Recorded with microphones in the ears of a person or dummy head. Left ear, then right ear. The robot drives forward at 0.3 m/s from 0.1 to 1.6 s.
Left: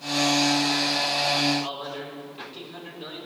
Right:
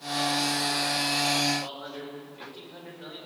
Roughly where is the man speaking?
Left.